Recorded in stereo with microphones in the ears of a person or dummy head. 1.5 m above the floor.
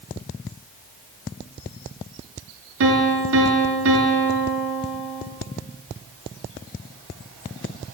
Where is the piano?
75° right (ahead or behind), 4 m.